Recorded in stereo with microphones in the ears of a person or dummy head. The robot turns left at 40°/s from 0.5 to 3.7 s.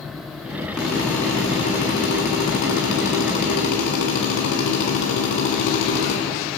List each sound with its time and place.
0.8 s a drill: 175° right, 2.5 m; by 6.2 s 65° left, 2.5 m